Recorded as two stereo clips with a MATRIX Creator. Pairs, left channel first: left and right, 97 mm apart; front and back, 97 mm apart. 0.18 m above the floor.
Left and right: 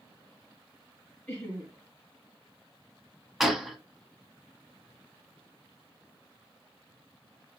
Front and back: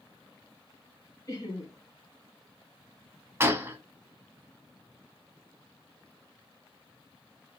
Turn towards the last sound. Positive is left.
turn(degrees=-175)